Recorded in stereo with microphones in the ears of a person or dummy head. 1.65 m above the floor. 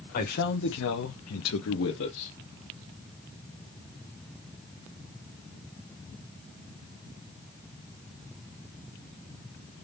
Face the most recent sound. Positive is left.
turn(degrees=50)  # may be behind; listen again after turning